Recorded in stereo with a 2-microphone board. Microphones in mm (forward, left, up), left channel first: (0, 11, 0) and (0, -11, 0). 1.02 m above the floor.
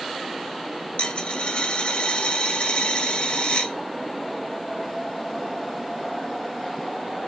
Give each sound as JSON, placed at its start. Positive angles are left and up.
{"t": 1.0, "sound": "a dropped coin", "side_deg": 75, "distance_m": 1.8}